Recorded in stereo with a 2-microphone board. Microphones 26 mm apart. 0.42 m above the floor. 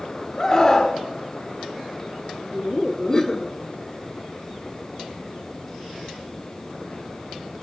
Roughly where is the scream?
Left.